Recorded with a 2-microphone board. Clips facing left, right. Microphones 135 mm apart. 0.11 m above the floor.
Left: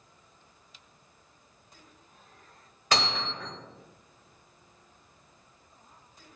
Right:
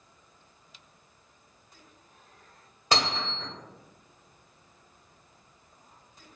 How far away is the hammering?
About 1.5 m.